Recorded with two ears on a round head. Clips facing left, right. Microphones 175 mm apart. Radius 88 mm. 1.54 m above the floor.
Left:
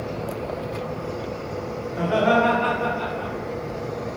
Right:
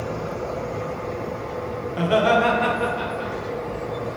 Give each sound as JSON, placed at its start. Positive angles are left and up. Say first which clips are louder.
{"t": 1.9, "sound": "laughter", "louder": "right 1 dB", "side_deg": -35, "distance_m": 0.8}